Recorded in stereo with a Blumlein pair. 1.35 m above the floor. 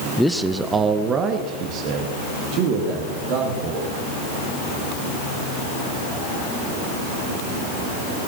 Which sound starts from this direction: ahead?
A man speaking, at 0.2 s.